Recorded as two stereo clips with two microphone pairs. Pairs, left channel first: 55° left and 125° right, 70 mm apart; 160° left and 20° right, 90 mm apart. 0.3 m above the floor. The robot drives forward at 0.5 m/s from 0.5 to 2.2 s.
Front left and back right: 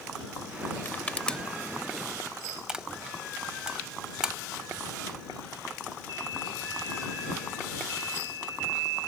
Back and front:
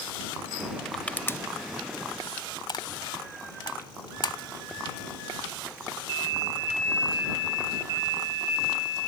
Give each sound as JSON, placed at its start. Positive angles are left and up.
{"t": 0.8, "sound": "crushing", "azimuth_deg": 75}